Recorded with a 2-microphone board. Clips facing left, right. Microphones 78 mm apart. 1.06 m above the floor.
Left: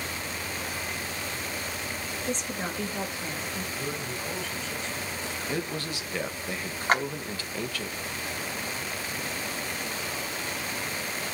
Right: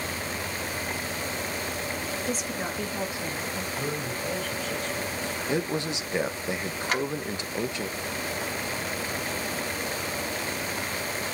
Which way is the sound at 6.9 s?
45° left (ahead or behind).